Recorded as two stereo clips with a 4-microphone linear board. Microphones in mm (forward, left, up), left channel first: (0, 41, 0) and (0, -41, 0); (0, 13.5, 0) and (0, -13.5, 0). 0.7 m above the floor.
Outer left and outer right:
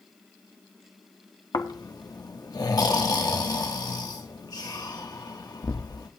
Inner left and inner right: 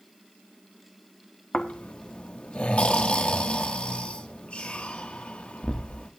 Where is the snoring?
45° left (ahead or behind), 1.2 m.